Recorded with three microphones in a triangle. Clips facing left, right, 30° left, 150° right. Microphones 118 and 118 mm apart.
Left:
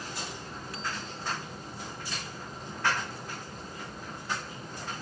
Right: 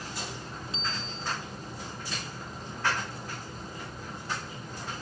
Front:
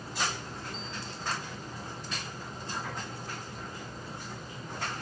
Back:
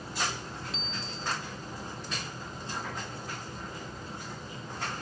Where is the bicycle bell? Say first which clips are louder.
Even, back 1 dB; 160° right.